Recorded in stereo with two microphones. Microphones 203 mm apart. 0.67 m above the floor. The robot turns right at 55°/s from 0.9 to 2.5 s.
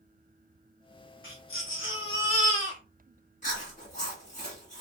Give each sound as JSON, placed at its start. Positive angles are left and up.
{"t": 1.2, "sound": "a baby crying", "azimuth_deg": 75, "distance_m": 1.4}
{"t": 3.4, "sound": "chewing", "side_deg": 35, "distance_m": 1.5}